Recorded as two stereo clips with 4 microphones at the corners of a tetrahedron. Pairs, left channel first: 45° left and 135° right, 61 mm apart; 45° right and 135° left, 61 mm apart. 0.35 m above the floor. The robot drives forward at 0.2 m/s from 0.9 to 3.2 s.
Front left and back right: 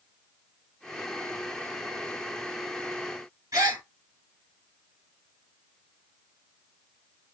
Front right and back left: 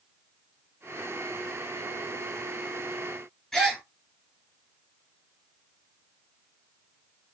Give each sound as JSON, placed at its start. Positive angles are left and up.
{"t": 3.5, "sound": "a gasp", "azimuth_deg": -130, "distance_m": 1.4}